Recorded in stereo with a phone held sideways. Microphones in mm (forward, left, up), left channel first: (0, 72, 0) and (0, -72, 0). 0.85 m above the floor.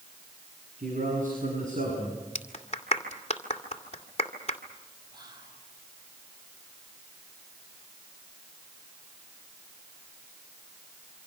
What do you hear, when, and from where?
0.8 s a man speaking: 70° right (ahead or behind), 7.5 m; by 2.2 s 55° right (ahead or behind), 7 m
2.4 s a clap: 45° left (ahead or behind), 2 m
5.1 s whispering: 30° right (ahead or behind), 5.5 m